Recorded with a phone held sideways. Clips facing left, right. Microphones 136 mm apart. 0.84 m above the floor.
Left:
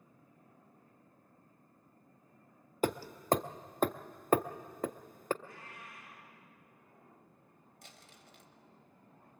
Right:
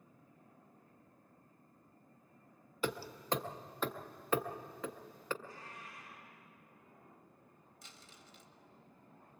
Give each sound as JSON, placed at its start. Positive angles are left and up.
{"t": 2.8, "sound": "hammering", "side_deg": 50, "distance_m": 0.5}
{"t": 5.4, "sound": "a cat meowing", "side_deg": 65, "distance_m": 7.5}
{"t": 7.8, "sound": "crumpling", "side_deg": 60, "distance_m": 1.4}